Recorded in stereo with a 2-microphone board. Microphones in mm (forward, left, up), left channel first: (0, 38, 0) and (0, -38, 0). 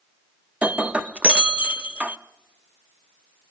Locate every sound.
0.6 s breaking glass: 20° right (ahead or behind), 0.6 m